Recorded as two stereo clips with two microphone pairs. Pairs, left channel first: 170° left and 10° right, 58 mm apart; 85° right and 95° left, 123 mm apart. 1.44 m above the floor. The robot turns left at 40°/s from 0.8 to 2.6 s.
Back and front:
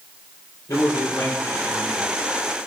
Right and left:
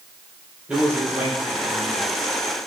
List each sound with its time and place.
0.7 s a man speaking: 175° left, 5 m; by 2.1 s 125° left, 5 m